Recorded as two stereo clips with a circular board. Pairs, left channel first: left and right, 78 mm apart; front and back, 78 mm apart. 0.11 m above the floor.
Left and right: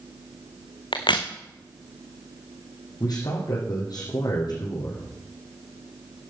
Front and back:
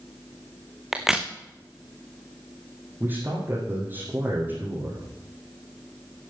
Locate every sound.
0.9 s a crack: 95° left, 1.7 m
3.0 s a man speaking: 120° left, 4.5 m